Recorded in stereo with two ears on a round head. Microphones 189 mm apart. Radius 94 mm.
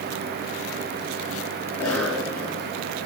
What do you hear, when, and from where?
1.7 s a cough: 10° left (ahead or behind), 7.5 m